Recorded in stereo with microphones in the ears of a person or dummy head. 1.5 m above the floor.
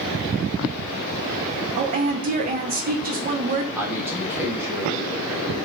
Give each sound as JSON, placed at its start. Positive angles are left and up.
{"t": 1.8, "sound": "a woman speaking", "side_deg": -35, "distance_m": 0.5}
{"t": 3.8, "sound": "a man speaking", "side_deg": -5, "distance_m": 0.9}